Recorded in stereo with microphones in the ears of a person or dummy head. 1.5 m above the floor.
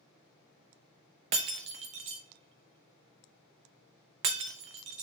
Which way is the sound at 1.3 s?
35° right (ahead or behind).